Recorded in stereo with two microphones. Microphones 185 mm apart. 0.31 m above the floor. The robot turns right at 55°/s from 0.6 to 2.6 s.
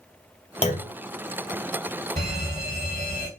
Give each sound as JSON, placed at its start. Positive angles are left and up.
{"t": 0.6, "sound": "a clunk", "side_deg": 35, "distance_m": 0.7}
{"t": 2.2, "sound": "a fire alarm", "side_deg": -40, "distance_m": 2.5}